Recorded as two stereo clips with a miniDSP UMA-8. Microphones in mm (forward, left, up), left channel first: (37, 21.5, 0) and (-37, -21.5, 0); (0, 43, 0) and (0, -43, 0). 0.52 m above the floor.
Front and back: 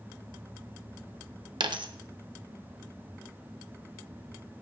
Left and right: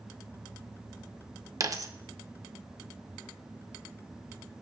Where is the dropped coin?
135° right, 0.5 m.